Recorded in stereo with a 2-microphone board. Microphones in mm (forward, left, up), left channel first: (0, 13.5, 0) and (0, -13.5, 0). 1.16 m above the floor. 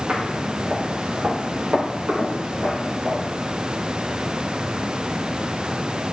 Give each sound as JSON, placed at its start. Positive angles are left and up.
{"t": 0.1, "sound": "footsteps", "side_deg": -65, "distance_m": 4.5}